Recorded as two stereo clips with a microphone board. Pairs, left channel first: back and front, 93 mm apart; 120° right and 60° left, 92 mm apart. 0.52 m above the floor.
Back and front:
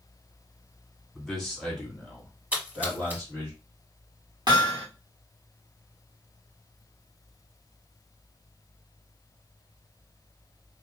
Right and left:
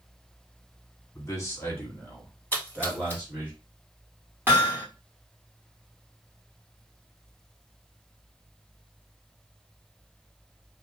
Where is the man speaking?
90° right, 1.5 m; by 3.5 s 125° left, 1.5 m.